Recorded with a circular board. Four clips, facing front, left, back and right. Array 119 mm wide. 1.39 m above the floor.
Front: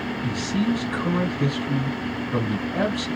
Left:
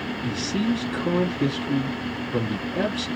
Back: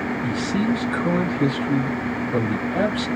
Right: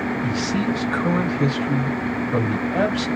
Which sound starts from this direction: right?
A man speaking, at 0.2 s.